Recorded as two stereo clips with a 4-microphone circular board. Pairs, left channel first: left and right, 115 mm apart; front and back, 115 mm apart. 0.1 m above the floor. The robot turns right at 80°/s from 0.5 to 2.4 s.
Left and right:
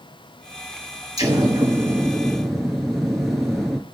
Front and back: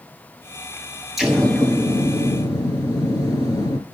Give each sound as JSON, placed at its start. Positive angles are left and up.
{"t": 1.2, "sound": "an explosion", "azimuth_deg": -95, "distance_m": 1.3}